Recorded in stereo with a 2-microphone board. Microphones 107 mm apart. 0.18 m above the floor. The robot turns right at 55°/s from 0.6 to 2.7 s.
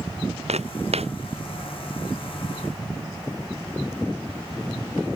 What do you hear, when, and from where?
0.5 s footsteps: 85° right; by 1.1 s 65° right (ahead or behind)